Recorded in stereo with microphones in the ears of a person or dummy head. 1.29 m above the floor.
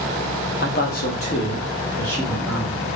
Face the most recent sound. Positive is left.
turn(degrees=10)  # may be behind; listen again after turning